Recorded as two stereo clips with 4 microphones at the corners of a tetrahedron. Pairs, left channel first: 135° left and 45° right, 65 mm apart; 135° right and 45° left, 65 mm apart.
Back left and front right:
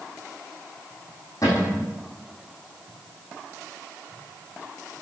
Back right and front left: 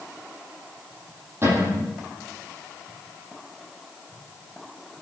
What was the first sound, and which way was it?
A cupboard door, 100° left.